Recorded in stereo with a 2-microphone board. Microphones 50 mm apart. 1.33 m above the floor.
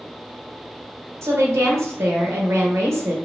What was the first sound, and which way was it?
A woman speaking, 75° right (ahead or behind).